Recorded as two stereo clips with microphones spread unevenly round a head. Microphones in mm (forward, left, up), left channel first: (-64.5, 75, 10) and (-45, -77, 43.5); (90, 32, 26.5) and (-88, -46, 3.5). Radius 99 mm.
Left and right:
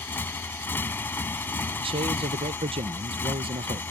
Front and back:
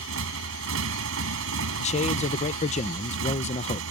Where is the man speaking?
25° right.